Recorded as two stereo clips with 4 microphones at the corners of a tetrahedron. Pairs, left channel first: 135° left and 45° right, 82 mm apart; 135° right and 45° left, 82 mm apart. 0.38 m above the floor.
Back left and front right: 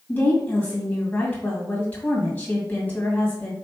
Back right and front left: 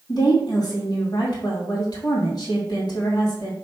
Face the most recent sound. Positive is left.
turn(degrees=-155)